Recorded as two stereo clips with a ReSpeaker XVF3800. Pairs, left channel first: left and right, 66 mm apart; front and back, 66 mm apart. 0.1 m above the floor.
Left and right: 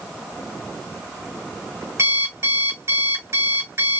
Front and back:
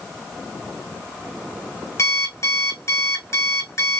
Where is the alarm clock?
40° right, 3.5 m.